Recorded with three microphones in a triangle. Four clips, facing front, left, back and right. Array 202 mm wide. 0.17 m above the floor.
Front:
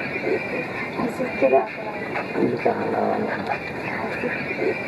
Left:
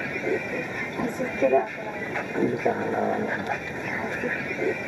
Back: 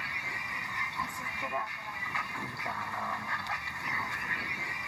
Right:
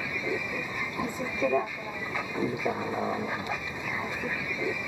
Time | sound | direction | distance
0.0 | a vehicle | 20° left | ?